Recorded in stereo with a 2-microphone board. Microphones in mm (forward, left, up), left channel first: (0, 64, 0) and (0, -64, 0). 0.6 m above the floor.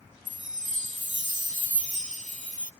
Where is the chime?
70° right (ahead or behind).